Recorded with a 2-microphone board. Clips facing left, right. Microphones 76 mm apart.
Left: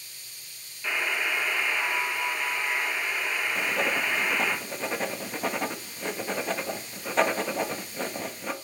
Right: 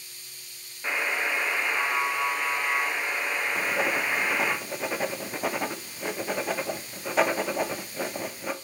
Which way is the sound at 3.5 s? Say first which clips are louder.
Right 1 dB; 5° right (ahead or behind).